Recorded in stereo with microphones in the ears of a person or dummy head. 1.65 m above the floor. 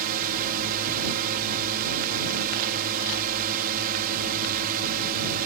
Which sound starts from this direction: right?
A drone, at 0.0 s.